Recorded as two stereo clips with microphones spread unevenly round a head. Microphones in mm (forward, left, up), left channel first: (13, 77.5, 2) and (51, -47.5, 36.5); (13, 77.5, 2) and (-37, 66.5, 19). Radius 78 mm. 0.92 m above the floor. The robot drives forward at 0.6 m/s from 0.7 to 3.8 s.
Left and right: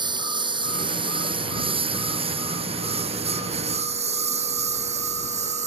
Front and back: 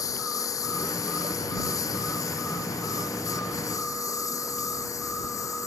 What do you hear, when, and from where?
0.0 s a lawn mower: 20° right; by 5.7 s 40° right